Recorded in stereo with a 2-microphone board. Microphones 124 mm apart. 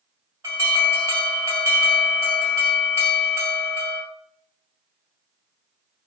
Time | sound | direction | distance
0.4 | an alarm | 20° right (ahead or behind) | 1.8 m